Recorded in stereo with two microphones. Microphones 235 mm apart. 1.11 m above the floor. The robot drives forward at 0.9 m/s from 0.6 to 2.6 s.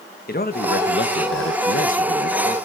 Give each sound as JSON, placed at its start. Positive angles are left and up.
{"t": 0.3, "sound": "a man speaking", "side_deg": 40, "distance_m": 1.3}